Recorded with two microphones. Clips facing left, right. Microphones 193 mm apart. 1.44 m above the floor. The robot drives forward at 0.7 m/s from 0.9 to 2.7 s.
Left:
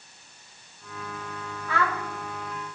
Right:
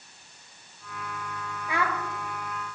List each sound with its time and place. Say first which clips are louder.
1.7 s a child speaking: left 1 dB; 15° right (ahead or behind), 0.7 m